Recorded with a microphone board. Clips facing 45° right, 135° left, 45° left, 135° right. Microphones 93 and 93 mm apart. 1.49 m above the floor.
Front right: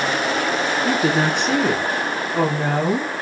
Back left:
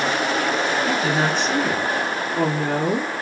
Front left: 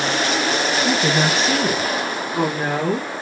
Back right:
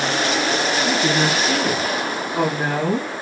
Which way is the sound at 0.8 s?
Straight ahead.